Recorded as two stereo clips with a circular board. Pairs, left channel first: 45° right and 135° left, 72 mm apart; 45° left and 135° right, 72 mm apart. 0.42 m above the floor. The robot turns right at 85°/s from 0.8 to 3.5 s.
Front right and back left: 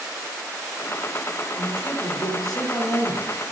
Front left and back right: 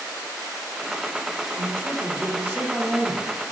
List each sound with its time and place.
1.6 s a man speaking: 175° left, 1.1 m; by 3.3 s 35° right, 1.1 m